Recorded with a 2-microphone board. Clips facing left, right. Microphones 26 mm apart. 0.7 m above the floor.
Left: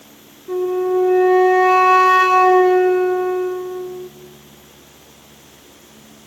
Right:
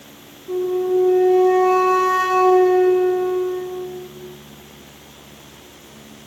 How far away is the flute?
About 1.2 m.